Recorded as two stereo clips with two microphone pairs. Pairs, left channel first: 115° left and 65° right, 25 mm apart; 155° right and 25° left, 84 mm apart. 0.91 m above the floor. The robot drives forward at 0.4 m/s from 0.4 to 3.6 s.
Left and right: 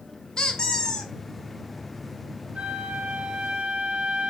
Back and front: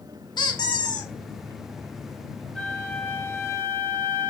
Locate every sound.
0.4 s a squeak: 175° left, 1.0 m
2.5 s a flute: 70° right, 0.9 m; by 4.3 s 100° right, 0.9 m